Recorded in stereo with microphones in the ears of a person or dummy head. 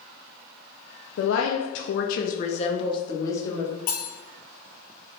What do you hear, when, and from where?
1.2 s a woman speaking: 70° left (ahead or behind), 0.7 m; by 3.7 s 10° left (ahead or behind), 1.4 m
3.9 s cutlery clinking: 55° left (ahead or behind), 1.6 m